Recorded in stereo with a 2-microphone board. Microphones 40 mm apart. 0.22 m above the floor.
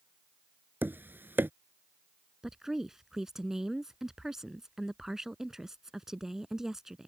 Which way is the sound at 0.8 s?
60° right (ahead or behind).